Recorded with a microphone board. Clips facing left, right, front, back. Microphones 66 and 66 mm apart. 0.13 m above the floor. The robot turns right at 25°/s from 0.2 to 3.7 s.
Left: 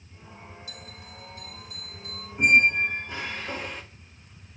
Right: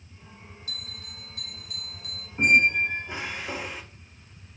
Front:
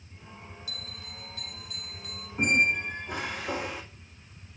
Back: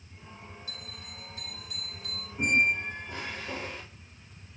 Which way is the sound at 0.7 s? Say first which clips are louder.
Even, front 1 dB; 130° right.